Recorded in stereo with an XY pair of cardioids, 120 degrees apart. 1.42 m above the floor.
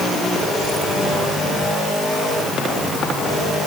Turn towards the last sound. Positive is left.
No sound to turn to.